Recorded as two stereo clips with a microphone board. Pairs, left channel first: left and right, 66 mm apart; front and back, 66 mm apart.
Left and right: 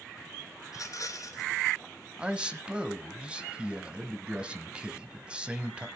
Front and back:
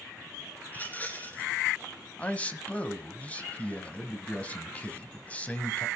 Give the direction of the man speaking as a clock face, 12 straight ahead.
1 o'clock.